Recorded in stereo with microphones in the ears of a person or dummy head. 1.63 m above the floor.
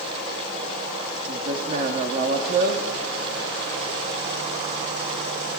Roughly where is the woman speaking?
Right.